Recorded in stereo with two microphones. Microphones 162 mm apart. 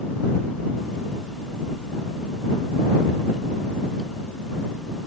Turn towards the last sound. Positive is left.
No sound to turn to.